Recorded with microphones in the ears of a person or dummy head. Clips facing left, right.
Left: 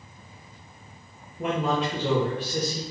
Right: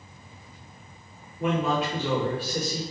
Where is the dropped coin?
No dropped coin in this recording.